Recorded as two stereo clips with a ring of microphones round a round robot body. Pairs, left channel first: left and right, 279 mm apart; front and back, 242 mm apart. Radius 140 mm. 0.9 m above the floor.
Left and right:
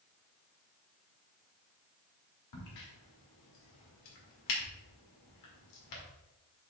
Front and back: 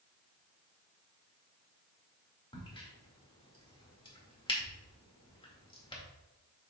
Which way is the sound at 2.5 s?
70° left.